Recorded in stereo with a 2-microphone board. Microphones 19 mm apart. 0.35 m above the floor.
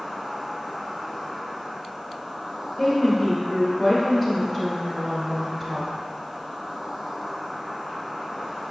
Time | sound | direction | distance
0.0 | an insect | 50° right (ahead or behind) | 1.5 m
2.8 | a woman speaking | centre (ahead or behind) | 0.9 m